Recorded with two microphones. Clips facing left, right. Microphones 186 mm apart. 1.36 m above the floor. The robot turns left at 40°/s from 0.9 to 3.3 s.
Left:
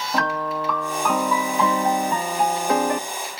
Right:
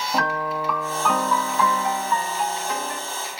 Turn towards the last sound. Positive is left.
turn(degrees=90)